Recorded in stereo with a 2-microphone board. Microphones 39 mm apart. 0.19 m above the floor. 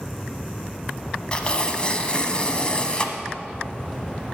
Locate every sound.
1.3 s tearing paper: 25° left (ahead or behind), 1.0 m